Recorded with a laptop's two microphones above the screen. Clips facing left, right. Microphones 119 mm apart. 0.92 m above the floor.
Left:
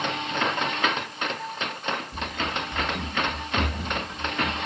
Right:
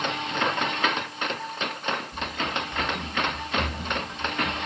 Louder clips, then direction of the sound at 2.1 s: Even; 60° left (ahead or behind).